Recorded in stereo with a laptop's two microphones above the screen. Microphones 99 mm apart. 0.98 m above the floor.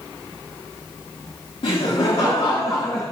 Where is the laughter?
75° left (ahead or behind), 2.5 m; by 3.0 s 50° left (ahead or behind), 2 m.